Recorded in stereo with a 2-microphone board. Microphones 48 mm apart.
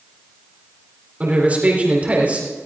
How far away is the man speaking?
About 4 m.